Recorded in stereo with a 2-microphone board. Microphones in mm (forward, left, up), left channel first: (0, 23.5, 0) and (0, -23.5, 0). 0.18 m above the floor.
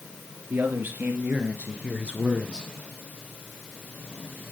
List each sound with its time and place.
0.5 s a man speaking: 50° right (ahead or behind), 2.5 m; by 2.7 s 15° right (ahead or behind), 2 m